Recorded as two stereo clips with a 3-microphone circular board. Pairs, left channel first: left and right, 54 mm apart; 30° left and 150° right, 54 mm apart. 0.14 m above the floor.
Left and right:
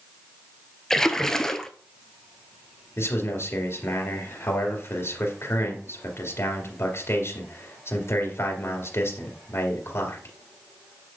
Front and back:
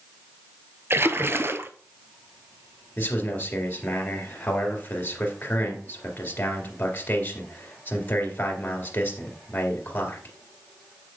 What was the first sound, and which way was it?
A splash, 170° left.